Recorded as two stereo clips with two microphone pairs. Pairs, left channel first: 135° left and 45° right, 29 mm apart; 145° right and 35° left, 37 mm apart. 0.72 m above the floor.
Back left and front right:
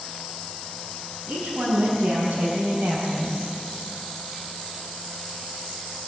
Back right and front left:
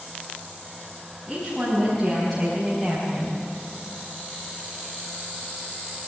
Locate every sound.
1.3 s a woman speaking: 55° right, 5.5 m